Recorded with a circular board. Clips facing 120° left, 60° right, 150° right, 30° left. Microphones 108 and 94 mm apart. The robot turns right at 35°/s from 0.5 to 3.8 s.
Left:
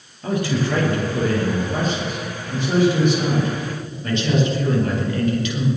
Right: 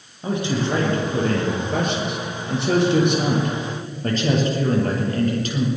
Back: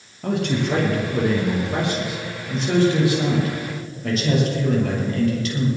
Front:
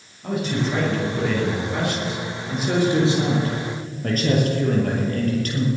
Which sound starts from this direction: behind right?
A man speaking, at 0.2 s.